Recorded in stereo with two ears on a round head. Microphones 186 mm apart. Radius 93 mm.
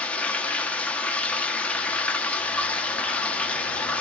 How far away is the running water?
About 1.1 m.